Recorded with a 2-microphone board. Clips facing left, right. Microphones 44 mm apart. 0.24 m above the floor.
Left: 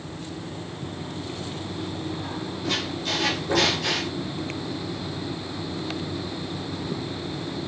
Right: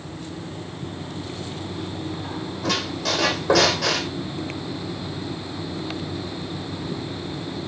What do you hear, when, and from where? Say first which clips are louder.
2.6 s a squeak: right 3 dB; 85° right, 1.8 m